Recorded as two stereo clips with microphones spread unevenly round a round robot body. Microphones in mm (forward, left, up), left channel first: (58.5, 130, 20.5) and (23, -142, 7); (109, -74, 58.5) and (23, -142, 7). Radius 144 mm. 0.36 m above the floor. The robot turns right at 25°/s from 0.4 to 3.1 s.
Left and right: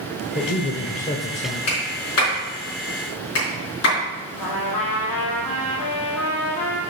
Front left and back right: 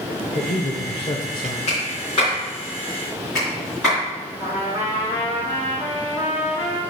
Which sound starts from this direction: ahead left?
A man speaking, at 0.3 s.